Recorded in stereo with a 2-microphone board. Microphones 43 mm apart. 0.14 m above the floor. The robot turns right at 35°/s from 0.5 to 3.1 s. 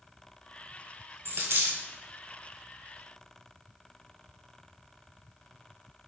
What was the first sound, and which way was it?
A dropped coin, 70° right (ahead or behind).